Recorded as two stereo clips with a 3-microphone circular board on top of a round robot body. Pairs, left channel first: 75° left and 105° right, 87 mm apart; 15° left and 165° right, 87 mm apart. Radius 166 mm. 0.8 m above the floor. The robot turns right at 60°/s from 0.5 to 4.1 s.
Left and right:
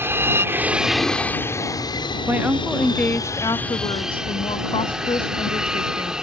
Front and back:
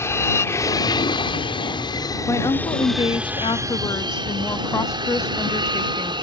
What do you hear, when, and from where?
0.0 s an aircraft: 45° right; by 6.2 s 175° left
2.3 s a woman speaking: 40° right; by 6.1 s 70° left